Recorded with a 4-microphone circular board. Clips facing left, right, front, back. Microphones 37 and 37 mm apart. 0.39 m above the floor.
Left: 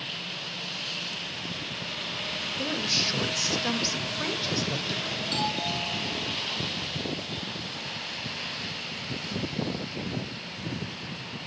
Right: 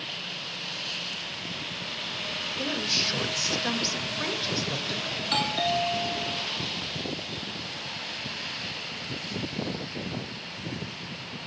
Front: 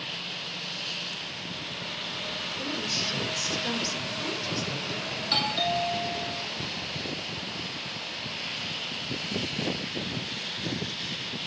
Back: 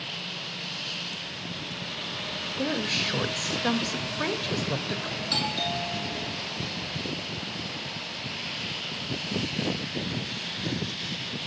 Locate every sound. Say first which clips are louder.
2.6 s a woman speaking: even, back 6 dB; straight behind, 1.5 m
5.2 s a doorbell: right 4 dB, front 3 dB; 65° right, 2.5 m